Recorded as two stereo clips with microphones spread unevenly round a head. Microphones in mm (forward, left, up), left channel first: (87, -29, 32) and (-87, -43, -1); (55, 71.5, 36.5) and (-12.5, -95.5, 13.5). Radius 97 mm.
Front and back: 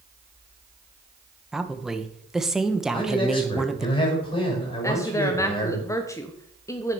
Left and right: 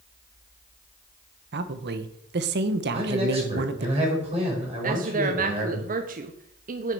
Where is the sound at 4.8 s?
65° right, 0.9 m.